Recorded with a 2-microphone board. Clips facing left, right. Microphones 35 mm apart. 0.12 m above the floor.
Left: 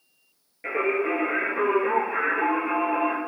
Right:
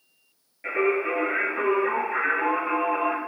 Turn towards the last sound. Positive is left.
turn(degrees=5)  # may be behind; listen again after turning